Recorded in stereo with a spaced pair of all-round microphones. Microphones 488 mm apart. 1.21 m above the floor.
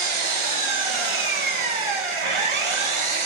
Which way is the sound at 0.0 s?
80° right.